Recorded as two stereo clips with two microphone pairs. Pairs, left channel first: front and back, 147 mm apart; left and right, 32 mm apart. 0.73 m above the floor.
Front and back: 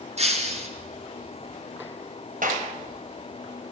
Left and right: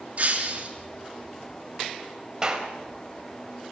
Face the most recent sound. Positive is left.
turn(degrees=-160)